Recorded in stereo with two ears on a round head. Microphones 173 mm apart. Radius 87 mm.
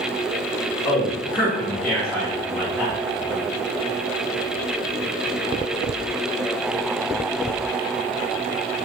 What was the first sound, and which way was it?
A man speaking, 10° left (ahead or behind).